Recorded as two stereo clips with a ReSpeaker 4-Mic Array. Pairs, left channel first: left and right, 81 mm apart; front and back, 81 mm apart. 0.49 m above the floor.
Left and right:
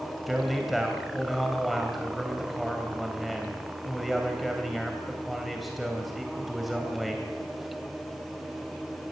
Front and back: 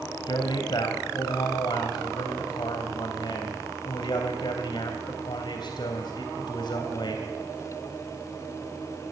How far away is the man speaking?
About 3 m.